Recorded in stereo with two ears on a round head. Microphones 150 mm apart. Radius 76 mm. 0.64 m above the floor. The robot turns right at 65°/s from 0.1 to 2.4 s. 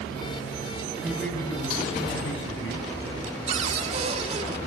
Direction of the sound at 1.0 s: 10° right.